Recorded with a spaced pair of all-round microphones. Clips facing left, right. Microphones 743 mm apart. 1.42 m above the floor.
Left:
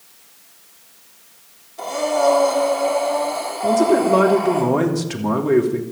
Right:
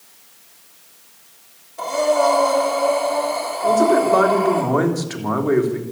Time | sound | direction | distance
1.8 | breathing | 10° right (ahead or behind) | 4.5 m
3.6 | a man speaking | 55° left (ahead or behind) | 3 m